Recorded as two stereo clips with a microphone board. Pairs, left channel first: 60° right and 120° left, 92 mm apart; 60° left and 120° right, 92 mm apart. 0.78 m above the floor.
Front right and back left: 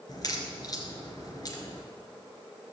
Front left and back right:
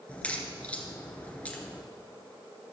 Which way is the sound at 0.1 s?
15° right.